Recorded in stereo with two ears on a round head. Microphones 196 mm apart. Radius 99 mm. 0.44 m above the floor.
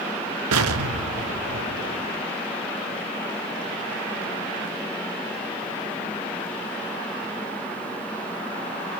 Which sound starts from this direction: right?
An explosion, at 0.5 s.